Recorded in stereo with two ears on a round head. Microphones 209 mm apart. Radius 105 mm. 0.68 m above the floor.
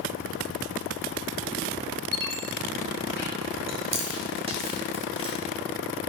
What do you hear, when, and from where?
2.1 s a squeak: 45° left (ahead or behind), 3 m
3.7 s chewing: 25° right (ahead or behind), 1.6 m